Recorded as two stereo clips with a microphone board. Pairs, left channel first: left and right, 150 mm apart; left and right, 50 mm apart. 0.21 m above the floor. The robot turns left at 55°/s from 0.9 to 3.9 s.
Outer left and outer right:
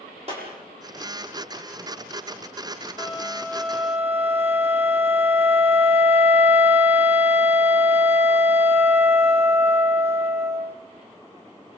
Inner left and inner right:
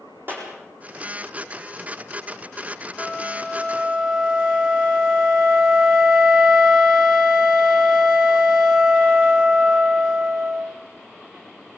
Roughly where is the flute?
Ahead left.